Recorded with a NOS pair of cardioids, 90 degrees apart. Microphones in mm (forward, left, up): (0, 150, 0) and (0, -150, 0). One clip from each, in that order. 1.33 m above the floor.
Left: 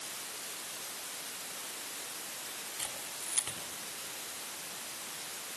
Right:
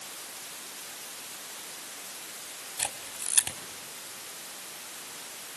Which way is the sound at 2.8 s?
65° right.